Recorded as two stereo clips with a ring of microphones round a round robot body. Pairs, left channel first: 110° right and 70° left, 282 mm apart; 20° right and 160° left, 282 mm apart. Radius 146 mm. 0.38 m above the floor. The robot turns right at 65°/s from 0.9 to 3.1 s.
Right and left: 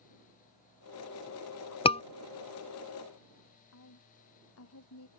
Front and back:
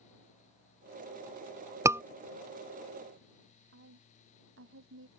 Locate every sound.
1.9 s a scream: 140° right; by 2.0 s 130° right
3.7 s a woman speaking: 155° right